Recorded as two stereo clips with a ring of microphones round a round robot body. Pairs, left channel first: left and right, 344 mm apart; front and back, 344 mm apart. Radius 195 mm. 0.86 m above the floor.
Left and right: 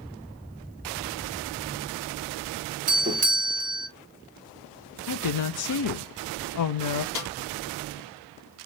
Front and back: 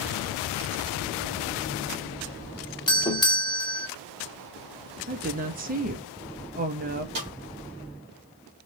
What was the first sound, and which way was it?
A doorbell, 60° right.